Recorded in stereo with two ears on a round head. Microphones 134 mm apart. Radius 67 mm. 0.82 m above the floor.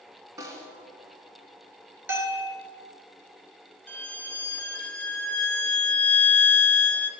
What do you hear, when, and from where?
0.4 s a snare drum: 20° right (ahead or behind), 1.9 m
2.1 s a bell: 15° right (ahead or behind), 2.5 m
3.9 s a violin: 10° left (ahead or behind), 1.1 m